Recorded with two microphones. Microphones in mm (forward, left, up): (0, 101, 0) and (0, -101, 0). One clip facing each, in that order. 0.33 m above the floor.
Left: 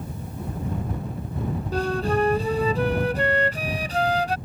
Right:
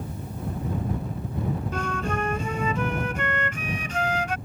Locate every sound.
1.7 s a flute: 35° left (ahead or behind)